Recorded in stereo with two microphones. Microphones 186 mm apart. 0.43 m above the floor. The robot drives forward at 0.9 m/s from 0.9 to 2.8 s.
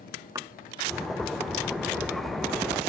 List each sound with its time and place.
0.3 s a thud: 15° right (ahead or behind)